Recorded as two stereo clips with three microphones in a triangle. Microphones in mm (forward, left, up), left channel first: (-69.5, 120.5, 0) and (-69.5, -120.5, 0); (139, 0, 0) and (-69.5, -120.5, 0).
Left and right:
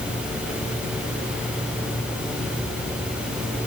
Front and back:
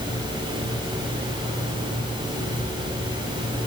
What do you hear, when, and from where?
Only background noise.